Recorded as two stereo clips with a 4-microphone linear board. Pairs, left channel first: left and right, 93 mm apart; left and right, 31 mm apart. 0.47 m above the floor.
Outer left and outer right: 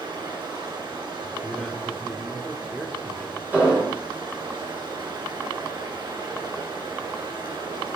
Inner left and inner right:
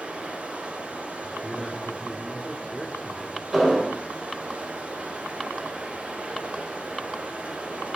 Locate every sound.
0.0 s running water: 60° right (ahead or behind), 3.5 m
1.2 s a man speaking: 5° left (ahead or behind), 1.4 m
3.5 s an explosion: 20° right (ahead or behind), 7.5 m